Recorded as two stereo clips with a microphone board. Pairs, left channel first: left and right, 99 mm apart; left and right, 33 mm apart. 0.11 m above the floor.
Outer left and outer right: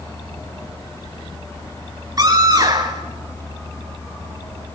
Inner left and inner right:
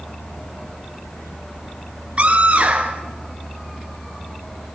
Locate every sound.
2.2 s a scream: 40° right (ahead or behind), 2 m